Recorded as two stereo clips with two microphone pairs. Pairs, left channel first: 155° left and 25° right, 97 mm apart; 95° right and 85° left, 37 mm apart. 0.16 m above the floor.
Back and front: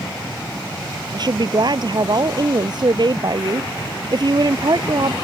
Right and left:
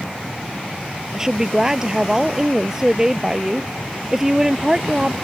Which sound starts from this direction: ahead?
A woman speaking, at 1.1 s.